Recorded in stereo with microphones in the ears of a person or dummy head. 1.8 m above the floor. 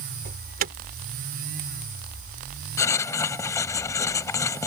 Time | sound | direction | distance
0.2 | an alarm | 45° right (ahead or behind) | ?
2.8 | writing | 15° left (ahead or behind) | ?